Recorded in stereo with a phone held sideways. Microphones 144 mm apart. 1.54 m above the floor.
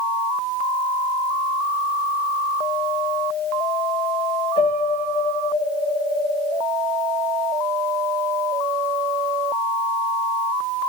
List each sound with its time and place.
4.6 s a piano: 50° left (ahead or behind), 3 m